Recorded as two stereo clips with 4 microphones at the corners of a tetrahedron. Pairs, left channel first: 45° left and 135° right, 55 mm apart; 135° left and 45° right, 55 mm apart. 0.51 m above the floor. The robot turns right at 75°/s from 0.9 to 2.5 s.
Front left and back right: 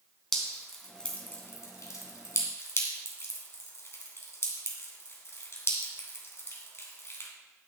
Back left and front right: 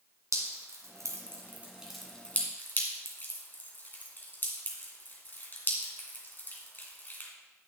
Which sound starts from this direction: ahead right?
Dripping, at 0.3 s.